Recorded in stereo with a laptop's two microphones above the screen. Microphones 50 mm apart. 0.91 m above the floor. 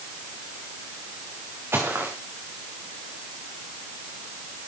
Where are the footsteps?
55° right (ahead or behind), 5.5 m.